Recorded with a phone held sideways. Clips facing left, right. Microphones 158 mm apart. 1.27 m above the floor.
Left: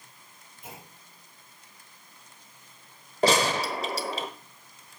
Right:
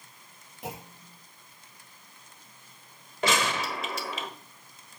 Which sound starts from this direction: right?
A clunk, at 0.6 s.